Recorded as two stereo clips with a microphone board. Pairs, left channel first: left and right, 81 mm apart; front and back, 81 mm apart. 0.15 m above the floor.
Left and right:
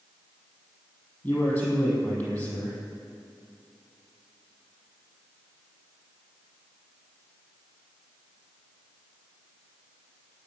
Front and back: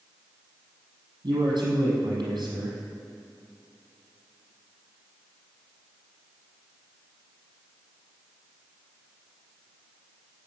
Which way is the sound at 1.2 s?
155° left.